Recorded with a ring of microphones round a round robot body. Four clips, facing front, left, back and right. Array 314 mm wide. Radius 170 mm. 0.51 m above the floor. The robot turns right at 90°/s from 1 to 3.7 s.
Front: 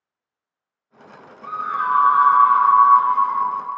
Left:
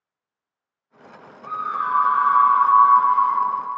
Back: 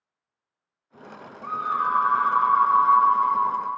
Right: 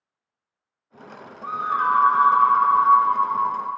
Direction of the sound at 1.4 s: 100° right.